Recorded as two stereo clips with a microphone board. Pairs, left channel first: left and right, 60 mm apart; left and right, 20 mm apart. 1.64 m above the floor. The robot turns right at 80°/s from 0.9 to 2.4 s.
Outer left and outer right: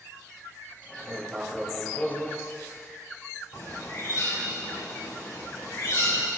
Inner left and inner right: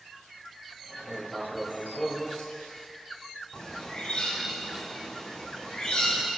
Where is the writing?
55° right, 2.5 m; by 2.9 s 55° left, 2.5 m.